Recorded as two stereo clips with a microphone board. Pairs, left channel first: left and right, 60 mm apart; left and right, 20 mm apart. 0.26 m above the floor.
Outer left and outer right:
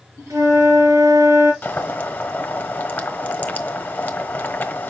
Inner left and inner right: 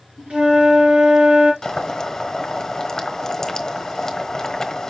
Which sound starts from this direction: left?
Boiling, at 1.6 s.